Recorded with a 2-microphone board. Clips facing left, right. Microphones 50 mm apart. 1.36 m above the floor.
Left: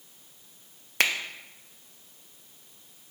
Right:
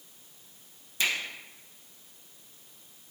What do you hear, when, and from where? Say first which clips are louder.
1.0 s a finger snap: left 4 dB; 60° left (ahead or behind), 0.6 m